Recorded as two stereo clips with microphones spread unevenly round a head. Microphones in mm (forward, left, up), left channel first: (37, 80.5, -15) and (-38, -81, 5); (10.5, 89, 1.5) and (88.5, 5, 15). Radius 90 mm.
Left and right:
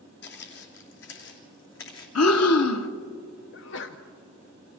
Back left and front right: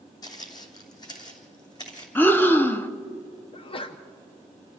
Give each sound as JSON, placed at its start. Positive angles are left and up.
{"t": 0.2, "sound": "footsteps", "azimuth_deg": 80, "distance_m": 2.5}
{"t": 2.1, "sound": "breathing", "azimuth_deg": 60, "distance_m": 1.1}
{"t": 3.5, "sound": "a sneeze", "azimuth_deg": 90, "distance_m": 0.8}